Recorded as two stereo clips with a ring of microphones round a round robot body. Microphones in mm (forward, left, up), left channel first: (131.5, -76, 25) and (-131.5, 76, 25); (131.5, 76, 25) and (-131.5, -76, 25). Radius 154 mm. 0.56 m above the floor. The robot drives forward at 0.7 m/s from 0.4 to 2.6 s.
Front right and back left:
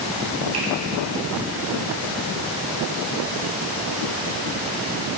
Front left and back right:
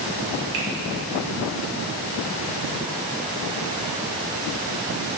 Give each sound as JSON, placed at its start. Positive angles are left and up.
{"t": 0.5, "sound": "a finger snap", "azimuth_deg": 175, "distance_m": 2.5}